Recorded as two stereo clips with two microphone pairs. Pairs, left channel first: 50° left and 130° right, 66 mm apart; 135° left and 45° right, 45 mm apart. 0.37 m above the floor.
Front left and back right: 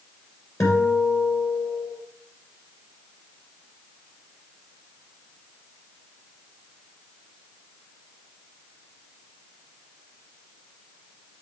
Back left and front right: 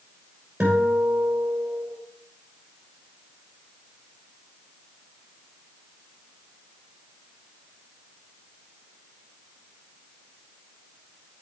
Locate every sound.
0.6 s a guitar: 15° left, 3 m